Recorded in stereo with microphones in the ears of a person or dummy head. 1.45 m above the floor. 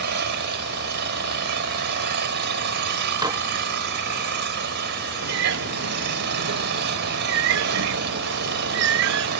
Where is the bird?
65° right (ahead or behind).